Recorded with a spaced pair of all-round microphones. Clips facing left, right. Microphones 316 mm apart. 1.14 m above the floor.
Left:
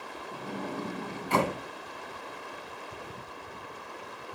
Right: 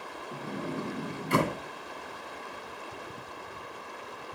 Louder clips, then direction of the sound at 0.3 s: Right 1 dB; 20° right (ahead or behind).